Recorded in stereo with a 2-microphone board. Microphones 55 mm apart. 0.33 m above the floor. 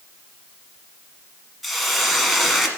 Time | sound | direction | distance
1.6 | a hiss | centre (ahead or behind) | 1.1 m